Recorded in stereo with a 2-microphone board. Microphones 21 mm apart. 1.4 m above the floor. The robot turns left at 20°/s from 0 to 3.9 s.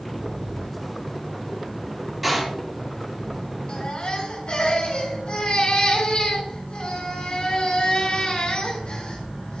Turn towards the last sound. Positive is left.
turn(degrees=60)  # may be behind; listen again after turning